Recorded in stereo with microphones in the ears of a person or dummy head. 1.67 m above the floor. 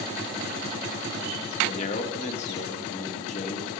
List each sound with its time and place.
1.6 s a man speaking: 35° left (ahead or behind), 1.1 m